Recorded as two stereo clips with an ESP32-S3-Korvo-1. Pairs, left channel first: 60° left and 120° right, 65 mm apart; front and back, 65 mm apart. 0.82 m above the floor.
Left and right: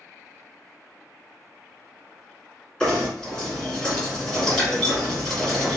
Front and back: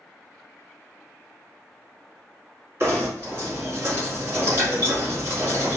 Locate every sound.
2.8 s knocking: 135° left, 1.5 m